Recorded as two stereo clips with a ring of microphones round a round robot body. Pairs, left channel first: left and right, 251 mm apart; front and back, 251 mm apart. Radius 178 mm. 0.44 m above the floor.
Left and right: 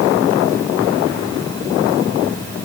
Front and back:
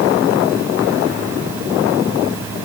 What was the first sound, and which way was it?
Only background noise.